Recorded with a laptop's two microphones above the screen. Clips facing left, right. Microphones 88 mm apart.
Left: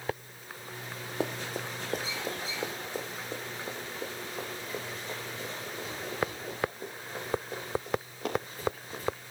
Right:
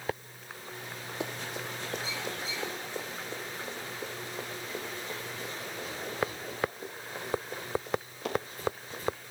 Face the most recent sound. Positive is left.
turn(degrees=40)  # may be behind; listen again after turning